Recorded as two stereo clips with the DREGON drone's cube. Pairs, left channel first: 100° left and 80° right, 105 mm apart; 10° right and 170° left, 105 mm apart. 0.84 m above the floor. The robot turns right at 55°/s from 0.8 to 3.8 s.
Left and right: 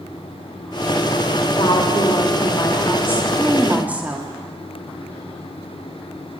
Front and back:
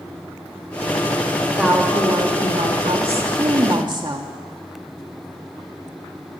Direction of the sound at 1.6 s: 85° left.